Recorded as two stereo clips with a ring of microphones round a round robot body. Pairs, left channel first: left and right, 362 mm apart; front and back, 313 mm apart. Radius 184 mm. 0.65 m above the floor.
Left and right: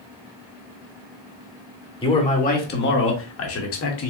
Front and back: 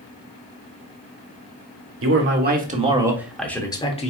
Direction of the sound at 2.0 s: 160° left.